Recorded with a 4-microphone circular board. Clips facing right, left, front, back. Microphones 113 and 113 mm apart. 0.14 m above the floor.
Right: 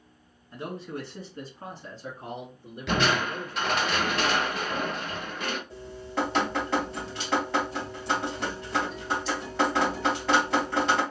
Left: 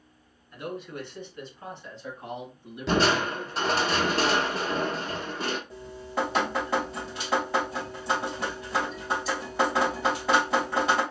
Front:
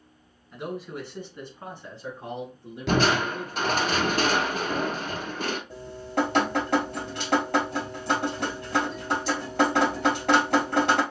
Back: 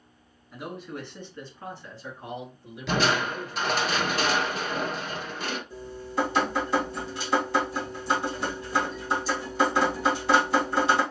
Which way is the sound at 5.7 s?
5° left.